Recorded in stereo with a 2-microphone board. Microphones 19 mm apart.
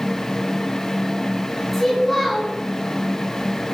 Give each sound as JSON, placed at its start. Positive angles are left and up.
{"t": 1.7, "sound": "a child speaking", "side_deg": 5, "distance_m": 7.0}